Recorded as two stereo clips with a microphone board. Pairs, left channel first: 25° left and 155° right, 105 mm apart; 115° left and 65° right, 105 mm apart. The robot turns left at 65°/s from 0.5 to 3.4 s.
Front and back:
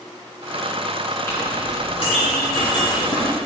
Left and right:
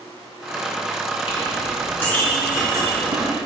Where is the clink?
90° left, 4 m; by 3.3 s 45° right, 4 m.